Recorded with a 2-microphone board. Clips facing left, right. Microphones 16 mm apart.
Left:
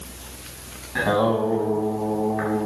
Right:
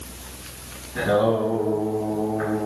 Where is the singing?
85° left, 5 m.